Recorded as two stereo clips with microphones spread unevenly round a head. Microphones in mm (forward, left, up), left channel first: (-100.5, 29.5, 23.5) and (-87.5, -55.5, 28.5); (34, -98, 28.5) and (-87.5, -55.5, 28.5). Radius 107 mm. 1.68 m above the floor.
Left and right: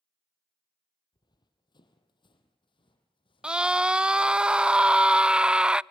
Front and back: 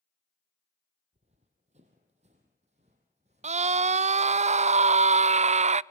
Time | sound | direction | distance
1.1 | running footsteps | 120° left | 2.5 m
3.4 | a scream | 160° right | 0.6 m